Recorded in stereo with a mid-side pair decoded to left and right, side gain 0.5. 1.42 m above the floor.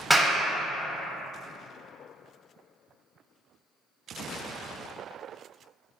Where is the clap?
10° right, 0.6 m.